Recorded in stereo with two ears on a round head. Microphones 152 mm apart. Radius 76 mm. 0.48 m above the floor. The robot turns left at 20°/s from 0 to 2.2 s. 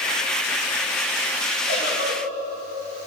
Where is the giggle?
80° left, 5 m; by 2.4 s 75° left (ahead or behind), 5 m.